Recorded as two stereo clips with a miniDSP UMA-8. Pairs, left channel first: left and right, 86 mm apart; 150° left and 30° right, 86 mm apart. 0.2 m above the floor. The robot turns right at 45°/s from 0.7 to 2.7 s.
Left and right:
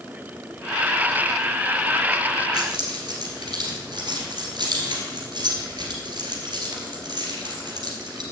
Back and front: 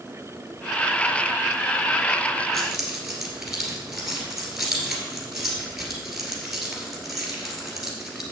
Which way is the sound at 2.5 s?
120° right.